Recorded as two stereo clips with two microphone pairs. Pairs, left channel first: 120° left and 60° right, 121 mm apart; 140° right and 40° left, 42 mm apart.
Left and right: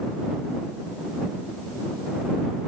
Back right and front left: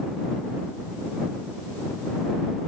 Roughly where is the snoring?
I don't hear snoring.